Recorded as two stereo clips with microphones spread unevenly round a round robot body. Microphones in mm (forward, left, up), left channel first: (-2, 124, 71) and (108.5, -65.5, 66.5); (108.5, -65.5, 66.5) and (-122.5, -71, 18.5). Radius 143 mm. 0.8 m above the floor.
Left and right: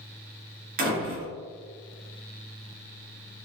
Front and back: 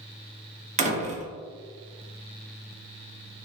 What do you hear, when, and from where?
0.8 s a door slam: 115° right, 0.7 m